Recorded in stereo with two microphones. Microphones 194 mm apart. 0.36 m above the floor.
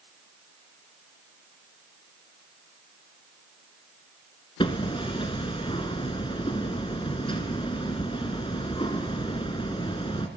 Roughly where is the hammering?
Left.